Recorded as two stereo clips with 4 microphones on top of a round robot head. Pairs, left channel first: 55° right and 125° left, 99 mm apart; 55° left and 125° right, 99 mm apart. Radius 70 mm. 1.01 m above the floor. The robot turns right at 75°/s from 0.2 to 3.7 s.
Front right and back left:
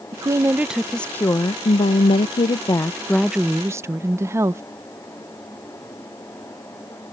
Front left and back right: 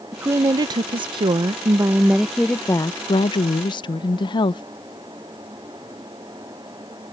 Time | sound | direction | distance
0.1 | a woman speaking | 170° left | ?